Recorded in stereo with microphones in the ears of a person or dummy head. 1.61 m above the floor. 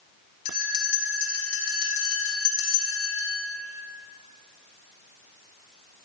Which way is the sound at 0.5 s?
50° left (ahead or behind).